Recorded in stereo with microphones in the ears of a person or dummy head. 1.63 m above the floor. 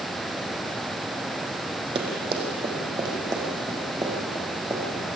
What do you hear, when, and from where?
1.9 s running footsteps: 30° right (ahead or behind), 4.5 m; by 5.1 s 15° right (ahead or behind), 7.5 m